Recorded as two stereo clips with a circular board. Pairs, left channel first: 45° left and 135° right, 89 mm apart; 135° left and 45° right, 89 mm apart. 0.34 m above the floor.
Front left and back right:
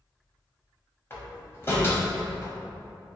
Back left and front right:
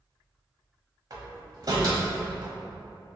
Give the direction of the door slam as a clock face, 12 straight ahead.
12 o'clock.